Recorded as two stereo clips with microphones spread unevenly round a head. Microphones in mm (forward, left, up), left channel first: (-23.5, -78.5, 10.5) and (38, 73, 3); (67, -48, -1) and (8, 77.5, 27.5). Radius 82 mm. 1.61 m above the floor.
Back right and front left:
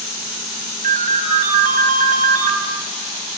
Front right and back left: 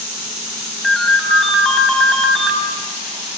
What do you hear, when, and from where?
0.8 s a ringtone: 25° left, 5 m